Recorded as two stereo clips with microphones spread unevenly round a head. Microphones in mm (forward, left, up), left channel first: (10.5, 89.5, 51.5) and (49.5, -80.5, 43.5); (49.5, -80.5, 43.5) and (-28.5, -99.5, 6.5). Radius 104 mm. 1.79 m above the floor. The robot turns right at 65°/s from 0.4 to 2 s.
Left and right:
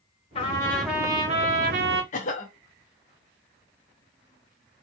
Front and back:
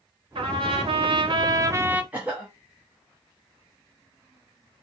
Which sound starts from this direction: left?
A cough, at 2.1 s.